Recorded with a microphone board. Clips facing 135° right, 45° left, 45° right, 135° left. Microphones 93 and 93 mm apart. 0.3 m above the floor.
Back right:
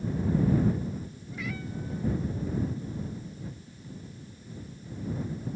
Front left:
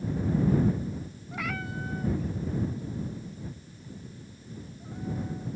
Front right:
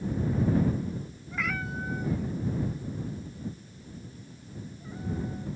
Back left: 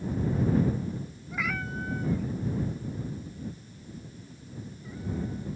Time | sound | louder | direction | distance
1.3 | a cat meowing | front left 2 dB, even | 55° left | ?